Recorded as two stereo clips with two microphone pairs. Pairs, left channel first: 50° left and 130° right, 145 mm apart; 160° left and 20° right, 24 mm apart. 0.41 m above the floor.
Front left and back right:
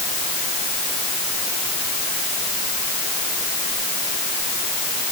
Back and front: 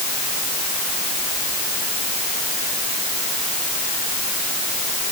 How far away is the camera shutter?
I don't hear a camera shutter.